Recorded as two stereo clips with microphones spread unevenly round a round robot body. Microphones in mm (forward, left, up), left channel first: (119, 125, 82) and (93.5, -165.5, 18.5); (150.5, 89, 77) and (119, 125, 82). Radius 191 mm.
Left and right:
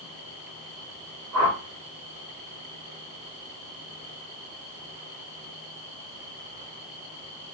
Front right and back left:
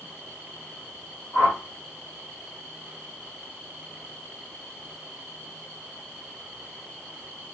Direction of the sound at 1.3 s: 95° right.